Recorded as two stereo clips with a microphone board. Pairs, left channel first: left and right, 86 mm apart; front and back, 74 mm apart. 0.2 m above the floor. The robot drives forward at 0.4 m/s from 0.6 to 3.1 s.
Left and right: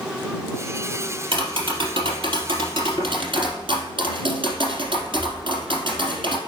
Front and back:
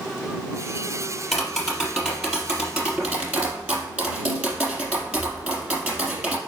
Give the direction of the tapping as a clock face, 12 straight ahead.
3 o'clock.